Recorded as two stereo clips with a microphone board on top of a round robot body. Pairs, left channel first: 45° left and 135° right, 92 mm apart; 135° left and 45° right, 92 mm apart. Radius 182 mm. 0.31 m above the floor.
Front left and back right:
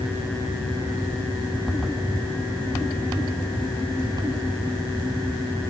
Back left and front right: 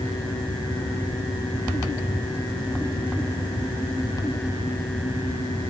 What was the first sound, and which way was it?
Only background noise.